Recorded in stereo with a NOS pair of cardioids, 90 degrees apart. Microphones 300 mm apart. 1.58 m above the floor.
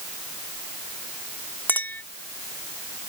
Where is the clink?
5° left.